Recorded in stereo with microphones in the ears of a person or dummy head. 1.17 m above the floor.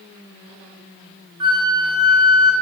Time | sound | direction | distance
1.4 | a flute | 25° right (ahead or behind) | 0.7 m